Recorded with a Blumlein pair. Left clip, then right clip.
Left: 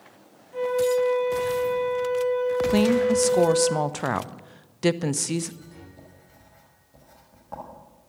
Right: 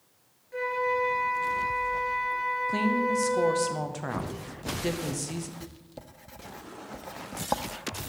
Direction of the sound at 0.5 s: 20° right.